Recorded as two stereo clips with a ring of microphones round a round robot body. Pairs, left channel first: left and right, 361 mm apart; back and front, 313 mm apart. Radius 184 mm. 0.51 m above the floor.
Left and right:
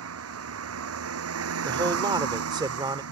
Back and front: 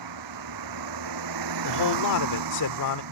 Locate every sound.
0.0 s a vehicle: 35° right
1.6 s a man speaking: 165° right